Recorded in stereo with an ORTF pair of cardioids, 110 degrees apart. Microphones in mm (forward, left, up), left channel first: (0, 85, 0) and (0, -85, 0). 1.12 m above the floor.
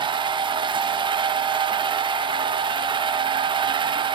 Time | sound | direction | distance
0.0 | a machine running | 30° right | 0.7 m